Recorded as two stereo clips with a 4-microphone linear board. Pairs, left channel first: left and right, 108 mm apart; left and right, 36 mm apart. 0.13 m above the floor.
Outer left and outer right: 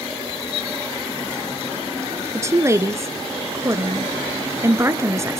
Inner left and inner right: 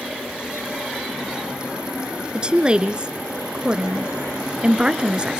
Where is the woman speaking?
30° right (ahead or behind), 1.4 m.